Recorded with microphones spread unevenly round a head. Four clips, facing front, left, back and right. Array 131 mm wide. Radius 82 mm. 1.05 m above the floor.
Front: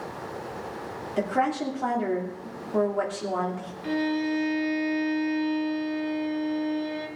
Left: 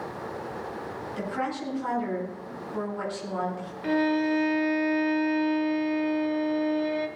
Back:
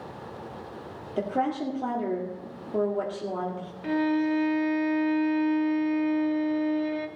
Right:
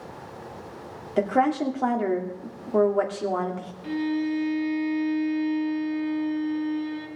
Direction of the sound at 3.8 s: 100° left.